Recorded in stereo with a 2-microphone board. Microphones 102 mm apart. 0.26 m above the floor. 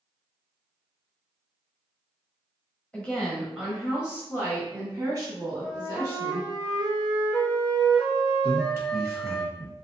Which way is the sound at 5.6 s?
35° right (ahead or behind).